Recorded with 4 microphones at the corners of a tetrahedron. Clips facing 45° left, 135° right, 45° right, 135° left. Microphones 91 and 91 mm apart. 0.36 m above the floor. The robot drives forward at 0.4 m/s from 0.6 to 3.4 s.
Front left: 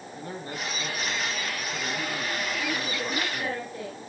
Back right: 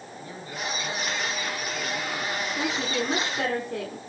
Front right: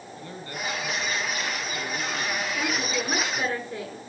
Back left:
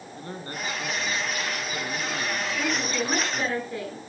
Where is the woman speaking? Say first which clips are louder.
Back right 3 dB, back left 2 dB; 135° right, 5 m.